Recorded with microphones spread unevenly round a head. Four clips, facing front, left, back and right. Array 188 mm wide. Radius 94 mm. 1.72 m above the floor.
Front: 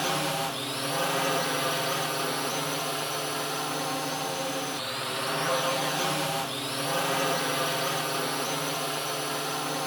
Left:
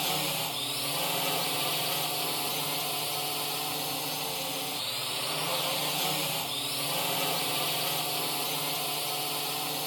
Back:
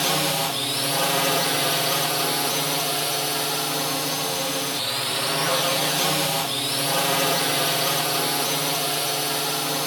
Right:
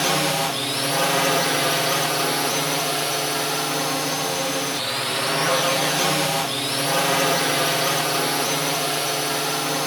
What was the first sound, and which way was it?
A drone, 105° right.